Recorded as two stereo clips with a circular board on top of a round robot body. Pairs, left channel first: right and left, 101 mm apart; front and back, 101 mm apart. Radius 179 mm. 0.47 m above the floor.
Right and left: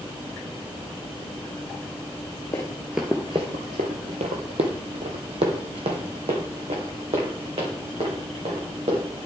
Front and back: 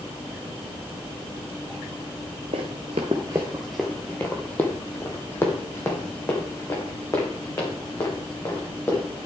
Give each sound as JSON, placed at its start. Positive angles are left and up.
{"t": 2.5, "sound": "running footsteps", "azimuth_deg": -155, "distance_m": 0.6}